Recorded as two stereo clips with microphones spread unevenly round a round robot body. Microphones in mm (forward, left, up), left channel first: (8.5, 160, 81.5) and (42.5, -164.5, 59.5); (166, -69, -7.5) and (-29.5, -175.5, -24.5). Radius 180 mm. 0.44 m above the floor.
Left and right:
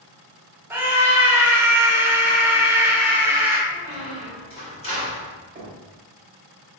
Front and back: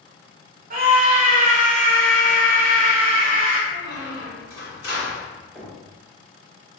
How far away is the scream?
About 1.0 m.